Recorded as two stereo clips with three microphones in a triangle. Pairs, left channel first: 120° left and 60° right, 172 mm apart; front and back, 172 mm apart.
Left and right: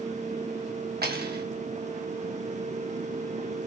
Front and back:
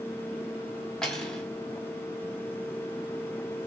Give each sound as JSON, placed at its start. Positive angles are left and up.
{"t": 1.0, "sound": "cutlery clinking", "azimuth_deg": -85, "distance_m": 0.9}